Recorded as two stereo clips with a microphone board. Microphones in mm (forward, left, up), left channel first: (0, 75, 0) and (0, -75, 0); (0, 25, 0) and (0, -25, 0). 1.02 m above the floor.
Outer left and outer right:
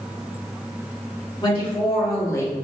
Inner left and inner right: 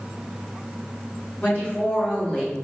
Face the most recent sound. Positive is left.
turn(degrees=15)  # may be behind; listen again after turning